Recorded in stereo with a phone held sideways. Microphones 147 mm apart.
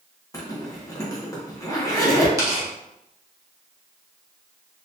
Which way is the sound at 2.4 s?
25° right (ahead or behind).